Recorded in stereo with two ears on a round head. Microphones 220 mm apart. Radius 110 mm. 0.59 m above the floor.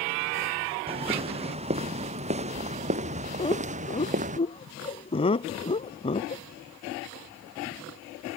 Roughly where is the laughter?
Left.